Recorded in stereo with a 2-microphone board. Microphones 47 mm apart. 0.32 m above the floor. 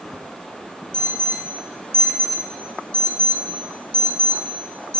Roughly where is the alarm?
Left.